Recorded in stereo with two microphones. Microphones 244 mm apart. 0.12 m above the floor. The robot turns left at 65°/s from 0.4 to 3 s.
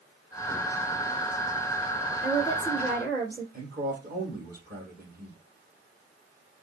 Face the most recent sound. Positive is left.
turn(degrees=-40)  # may be behind; listen again after turning